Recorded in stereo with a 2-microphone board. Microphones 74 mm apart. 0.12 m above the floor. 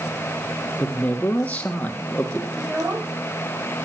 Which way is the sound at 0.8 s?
20° left (ahead or behind).